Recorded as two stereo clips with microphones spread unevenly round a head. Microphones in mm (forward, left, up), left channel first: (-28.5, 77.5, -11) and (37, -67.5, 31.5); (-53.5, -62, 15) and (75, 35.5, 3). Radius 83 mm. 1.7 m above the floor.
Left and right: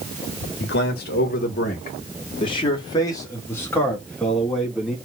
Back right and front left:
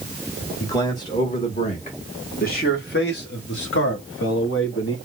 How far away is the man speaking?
About 2 m.